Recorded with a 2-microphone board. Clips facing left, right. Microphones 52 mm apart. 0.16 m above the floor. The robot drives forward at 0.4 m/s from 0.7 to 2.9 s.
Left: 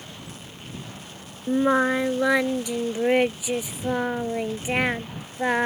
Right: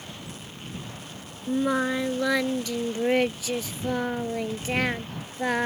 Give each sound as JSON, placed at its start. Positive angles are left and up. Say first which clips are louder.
{"t": 1.5, "sound": "singing", "louder": "left 4 dB", "side_deg": 35}